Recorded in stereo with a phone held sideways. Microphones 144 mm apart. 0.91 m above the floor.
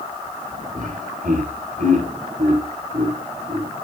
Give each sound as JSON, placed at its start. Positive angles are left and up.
{"t": 0.8, "sound": "laughter", "side_deg": -75, "distance_m": 4.0}